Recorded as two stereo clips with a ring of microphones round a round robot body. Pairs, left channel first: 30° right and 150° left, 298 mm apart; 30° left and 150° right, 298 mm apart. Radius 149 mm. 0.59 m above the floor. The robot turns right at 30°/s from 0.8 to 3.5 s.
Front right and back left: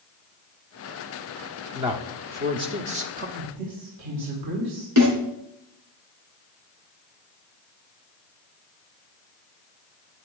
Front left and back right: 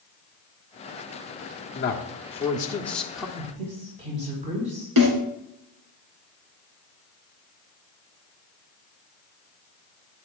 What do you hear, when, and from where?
1.8 s a man speaking: 80° left, 1.4 m; by 3.3 s 125° left, 1.4 m
3.4 s a woman speaking: 140° left, 3.5 m; by 4.9 s 145° left, 3.5 m
5.0 s a snare drum: 175° right, 4 m